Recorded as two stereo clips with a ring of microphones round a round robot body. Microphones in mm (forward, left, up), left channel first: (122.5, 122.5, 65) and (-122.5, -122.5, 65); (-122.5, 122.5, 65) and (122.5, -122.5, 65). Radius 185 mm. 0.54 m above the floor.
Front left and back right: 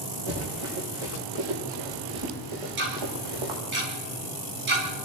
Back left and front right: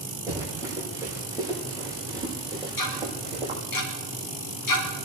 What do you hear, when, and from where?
0.3 s running footsteps: 130° right, 7 m; by 3.6 s 120° right, 5.5 m
2.8 s ticking: 165° left, 3.5 m